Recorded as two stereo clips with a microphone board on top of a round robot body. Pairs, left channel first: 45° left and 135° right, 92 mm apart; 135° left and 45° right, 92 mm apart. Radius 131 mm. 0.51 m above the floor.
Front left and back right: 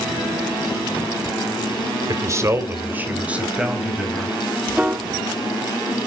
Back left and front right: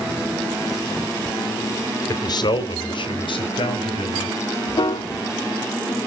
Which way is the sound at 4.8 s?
150° left.